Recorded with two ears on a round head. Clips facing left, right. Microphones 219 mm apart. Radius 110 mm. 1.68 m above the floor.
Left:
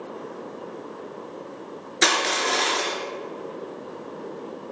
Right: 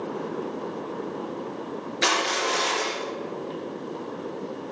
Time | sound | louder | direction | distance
2.0 | crushing | left 2 dB | 65° left (ahead or behind) | 4 m